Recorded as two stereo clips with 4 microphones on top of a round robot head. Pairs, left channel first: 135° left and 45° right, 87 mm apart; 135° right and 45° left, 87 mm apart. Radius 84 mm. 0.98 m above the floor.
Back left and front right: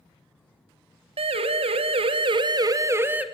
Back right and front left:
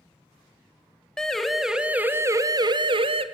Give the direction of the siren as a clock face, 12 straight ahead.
2 o'clock.